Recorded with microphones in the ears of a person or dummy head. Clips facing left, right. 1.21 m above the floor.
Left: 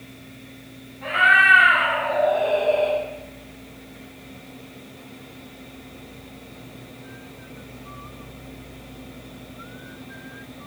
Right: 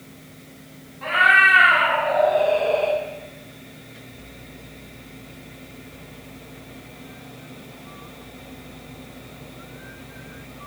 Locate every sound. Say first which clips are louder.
1.0 s a cat meowing: right 1 dB; 65° right (ahead or behind), 5.5 m; by 3.0 s 80° right, 3 m